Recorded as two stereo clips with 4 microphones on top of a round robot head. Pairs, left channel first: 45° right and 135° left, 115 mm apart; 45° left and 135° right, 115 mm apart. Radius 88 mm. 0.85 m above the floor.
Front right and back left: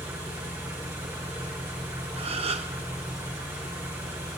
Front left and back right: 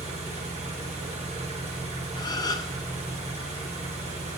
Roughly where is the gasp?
Left.